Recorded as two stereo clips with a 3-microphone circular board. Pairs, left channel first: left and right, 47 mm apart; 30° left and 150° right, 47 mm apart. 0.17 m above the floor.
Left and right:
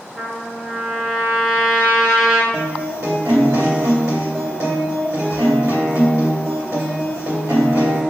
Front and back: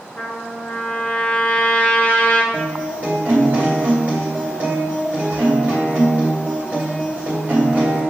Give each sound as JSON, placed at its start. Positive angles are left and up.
{"t": 0.2, "sound": "a trumpet", "azimuth_deg": -25, "distance_m": 0.7}
{"t": 2.5, "sound": "a guitar", "azimuth_deg": -90, "distance_m": 1.8}